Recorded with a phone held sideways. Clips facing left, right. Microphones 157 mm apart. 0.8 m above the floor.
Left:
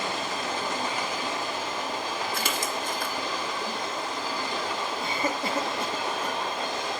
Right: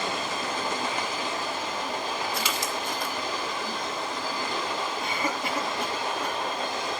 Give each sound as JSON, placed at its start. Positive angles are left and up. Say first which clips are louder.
{"t": 2.3, "sound": "a splash", "louder": "even", "side_deg": 50, "distance_m": 2.0}
{"t": 5.0, "sound": "a cough", "louder": "left 1 dB", "side_deg": 30, "distance_m": 3.5}